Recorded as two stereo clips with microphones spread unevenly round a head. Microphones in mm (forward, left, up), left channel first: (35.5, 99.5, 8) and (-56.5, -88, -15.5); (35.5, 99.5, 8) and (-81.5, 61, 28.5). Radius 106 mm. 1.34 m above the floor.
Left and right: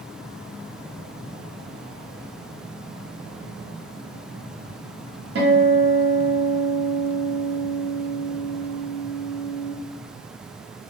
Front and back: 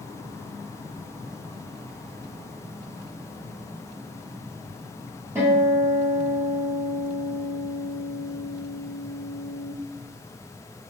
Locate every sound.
5.3 s a guitar: 100° right, 1.1 m